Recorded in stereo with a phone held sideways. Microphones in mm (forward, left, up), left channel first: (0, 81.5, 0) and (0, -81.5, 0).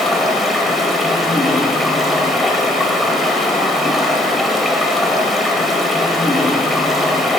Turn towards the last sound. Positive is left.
turn(degrees=0)  # may be behind; listen again after turning